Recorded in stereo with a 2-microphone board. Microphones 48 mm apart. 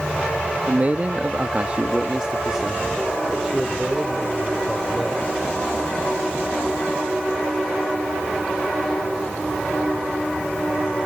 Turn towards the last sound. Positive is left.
turn(degrees=0)  # may be behind; listen again after turning